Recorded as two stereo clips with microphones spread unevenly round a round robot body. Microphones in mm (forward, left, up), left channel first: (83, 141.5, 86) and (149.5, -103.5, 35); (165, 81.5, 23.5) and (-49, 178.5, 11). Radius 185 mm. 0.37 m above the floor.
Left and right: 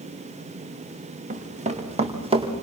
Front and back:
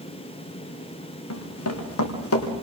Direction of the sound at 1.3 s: 15° right.